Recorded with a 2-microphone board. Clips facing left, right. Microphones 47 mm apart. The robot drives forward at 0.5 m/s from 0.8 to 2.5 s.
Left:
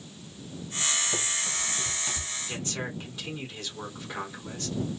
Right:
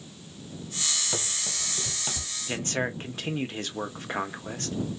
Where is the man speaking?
45° right (ahead or behind), 0.7 m.